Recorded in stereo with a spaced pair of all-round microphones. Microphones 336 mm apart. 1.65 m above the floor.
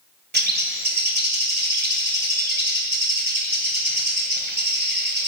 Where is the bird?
30° right (ahead or behind), 2 m.